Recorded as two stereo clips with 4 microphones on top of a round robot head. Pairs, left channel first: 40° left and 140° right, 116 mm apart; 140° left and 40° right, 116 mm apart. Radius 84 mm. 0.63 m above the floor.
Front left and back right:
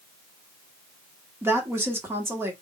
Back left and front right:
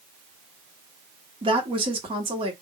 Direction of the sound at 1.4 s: 75° right.